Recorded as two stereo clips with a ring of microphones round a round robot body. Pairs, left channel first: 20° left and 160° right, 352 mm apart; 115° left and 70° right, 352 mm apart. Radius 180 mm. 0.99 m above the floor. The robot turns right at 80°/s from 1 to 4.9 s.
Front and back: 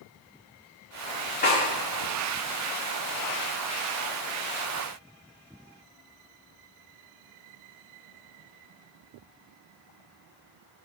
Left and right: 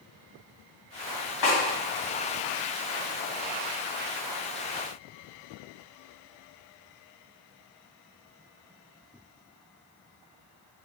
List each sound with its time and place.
1.4 s a snare drum: 95° left, 1.9 m; by 1.6 s 105° left, 1.9 m